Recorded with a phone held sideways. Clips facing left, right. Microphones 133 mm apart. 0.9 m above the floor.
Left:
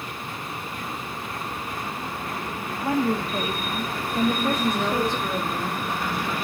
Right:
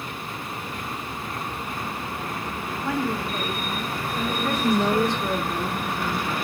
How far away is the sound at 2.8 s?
About 0.7 m.